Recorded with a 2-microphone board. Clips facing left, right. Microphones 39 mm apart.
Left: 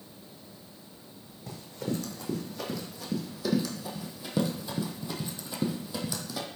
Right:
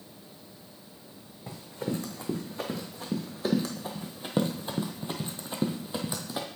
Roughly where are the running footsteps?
Right.